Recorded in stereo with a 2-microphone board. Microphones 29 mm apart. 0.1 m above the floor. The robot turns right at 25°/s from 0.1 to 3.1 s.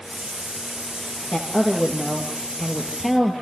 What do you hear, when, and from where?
1.3 s a woman speaking: 135° left, 2.5 m; by 3.3 s straight behind, 2.5 m